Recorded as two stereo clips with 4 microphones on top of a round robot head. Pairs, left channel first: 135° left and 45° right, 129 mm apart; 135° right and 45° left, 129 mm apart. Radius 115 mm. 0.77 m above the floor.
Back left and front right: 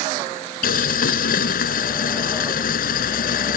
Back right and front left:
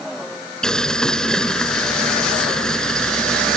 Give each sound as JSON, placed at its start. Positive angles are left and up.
{"t": 0.6, "sound": "boiling", "azimuth_deg": 140}